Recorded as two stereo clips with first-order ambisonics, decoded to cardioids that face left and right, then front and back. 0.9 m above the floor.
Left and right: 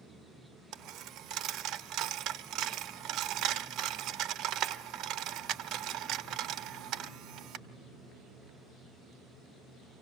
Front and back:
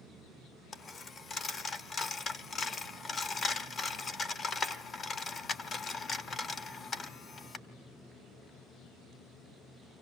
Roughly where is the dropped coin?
Ahead right.